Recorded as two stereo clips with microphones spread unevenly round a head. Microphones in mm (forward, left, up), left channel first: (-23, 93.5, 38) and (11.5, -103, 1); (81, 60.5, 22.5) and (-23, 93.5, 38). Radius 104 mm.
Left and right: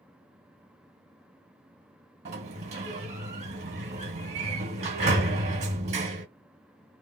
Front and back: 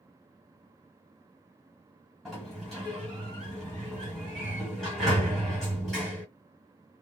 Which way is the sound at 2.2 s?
120° right.